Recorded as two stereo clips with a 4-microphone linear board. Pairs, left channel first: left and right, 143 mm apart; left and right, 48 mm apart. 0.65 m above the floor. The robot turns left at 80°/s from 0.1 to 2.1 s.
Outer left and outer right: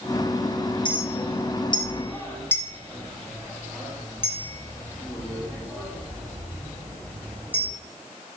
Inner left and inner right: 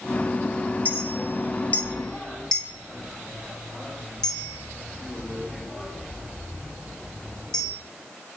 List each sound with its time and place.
0.8 s a clink: 35° left (ahead or behind), 0.6 m; by 7.7 s 15° left (ahead or behind), 0.6 m